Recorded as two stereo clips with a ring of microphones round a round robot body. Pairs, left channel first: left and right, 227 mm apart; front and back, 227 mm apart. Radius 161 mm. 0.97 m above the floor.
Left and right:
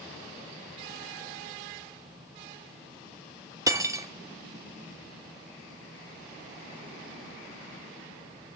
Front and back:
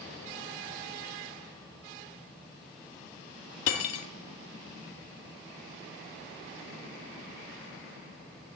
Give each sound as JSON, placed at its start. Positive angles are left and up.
{"t": 3.7, "sound": "cutlery clinking", "azimuth_deg": -15, "distance_m": 1.1}